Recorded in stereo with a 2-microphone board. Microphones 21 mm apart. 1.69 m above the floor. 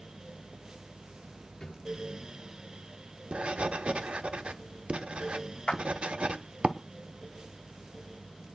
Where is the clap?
70° left (ahead or behind), 2 m.